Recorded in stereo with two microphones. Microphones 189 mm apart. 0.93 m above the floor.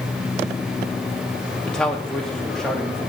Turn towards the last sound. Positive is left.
turn(degrees=5)  # may be behind; listen again after turning